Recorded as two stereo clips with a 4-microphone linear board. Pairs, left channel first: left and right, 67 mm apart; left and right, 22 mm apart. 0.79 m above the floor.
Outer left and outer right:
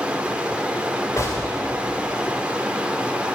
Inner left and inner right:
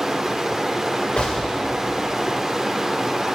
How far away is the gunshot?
About 2 m.